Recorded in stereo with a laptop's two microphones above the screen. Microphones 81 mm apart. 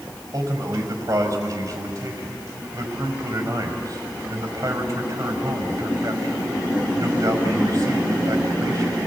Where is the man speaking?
45° right (ahead or behind), 5 m.